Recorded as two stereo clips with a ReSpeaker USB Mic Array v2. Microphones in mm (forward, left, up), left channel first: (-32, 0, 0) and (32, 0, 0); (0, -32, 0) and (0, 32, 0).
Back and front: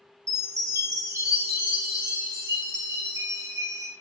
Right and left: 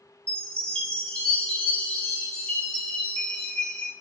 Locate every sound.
0.3 s a chime: 20° right, 1.6 m